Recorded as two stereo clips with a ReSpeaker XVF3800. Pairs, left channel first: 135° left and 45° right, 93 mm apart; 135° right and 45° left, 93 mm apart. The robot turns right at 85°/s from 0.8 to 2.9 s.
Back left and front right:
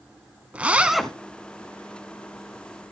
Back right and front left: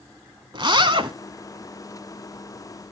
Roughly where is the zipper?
Ahead left.